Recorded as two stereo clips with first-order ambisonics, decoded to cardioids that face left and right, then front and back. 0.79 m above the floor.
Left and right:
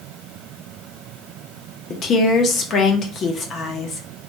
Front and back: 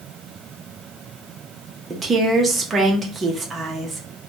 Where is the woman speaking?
120° left, 0.6 m.